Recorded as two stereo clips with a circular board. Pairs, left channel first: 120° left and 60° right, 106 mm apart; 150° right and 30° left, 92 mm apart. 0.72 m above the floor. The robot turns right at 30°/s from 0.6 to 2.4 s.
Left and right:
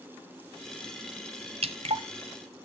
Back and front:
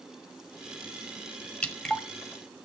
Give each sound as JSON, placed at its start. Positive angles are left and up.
{"t": 1.6, "sound": "dripping", "azimuth_deg": -75, "distance_m": 1.2}